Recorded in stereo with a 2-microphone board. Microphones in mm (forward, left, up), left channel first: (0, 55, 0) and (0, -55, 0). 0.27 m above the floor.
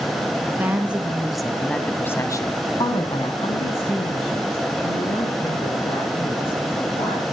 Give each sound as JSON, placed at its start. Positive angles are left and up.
{"t": 0.6, "sound": "a woman speaking", "side_deg": -15, "distance_m": 3.0}